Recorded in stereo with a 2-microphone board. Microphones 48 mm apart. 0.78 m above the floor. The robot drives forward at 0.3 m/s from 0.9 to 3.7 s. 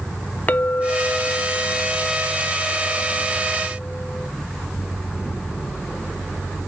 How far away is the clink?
About 0.6 m.